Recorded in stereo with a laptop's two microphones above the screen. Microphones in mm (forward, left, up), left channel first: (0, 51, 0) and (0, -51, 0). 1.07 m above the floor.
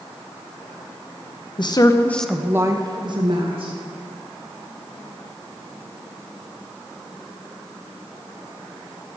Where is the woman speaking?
50° left (ahead or behind), 1.0 m; by 3.7 s 60° right (ahead or behind), 1.8 m.